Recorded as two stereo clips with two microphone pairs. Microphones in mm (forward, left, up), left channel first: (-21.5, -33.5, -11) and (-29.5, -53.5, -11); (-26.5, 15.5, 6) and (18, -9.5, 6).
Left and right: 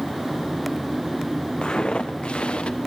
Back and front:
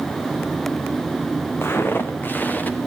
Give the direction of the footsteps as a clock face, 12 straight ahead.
8 o'clock.